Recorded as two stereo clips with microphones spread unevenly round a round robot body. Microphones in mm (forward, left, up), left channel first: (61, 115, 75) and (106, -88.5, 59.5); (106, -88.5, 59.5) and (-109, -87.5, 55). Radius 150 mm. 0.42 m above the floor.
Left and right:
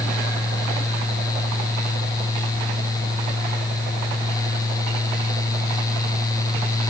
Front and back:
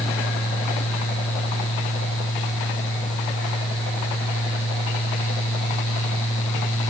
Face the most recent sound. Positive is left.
No sound to turn to.